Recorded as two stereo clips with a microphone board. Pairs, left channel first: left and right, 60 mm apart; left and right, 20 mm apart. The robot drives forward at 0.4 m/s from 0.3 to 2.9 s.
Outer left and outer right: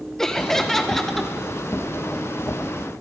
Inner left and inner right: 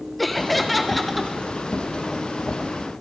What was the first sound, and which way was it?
Laughter, 10° left (ahead or behind).